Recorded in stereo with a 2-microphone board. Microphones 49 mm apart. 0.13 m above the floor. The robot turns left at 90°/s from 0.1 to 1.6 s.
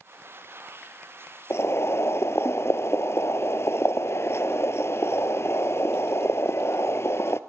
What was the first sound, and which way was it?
Boiling, 65° left (ahead or behind).